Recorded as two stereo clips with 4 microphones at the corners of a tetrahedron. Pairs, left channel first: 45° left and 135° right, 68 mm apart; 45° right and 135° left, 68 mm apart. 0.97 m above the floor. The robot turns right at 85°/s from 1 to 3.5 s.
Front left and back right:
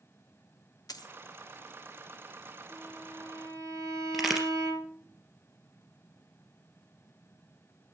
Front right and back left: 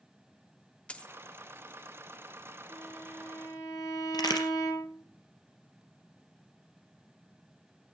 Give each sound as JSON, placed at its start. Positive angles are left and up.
{"t": 0.9, "sound": "a dropped coin", "azimuth_deg": 25, "distance_m": 1.0}
{"t": 2.7, "sound": "a violin", "azimuth_deg": -150, "distance_m": 7.5}
{"t": 4.1, "sound": "a crack", "azimuth_deg": -45, "distance_m": 3.5}